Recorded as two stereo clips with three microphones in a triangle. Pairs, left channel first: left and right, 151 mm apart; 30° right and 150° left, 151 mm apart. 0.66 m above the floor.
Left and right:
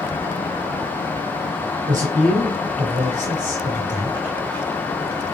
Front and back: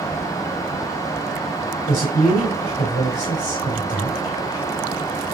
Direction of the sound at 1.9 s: 50° right.